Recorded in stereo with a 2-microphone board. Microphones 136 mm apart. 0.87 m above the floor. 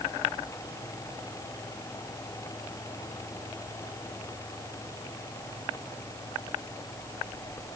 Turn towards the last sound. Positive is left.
No sound to turn to.